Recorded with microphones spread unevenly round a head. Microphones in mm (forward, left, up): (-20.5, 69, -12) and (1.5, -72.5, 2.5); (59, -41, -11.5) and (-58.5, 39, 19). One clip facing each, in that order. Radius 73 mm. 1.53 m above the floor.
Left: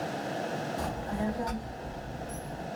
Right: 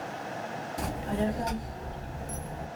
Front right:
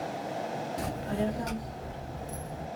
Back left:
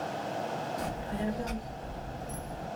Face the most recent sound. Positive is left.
turn(degrees=-20)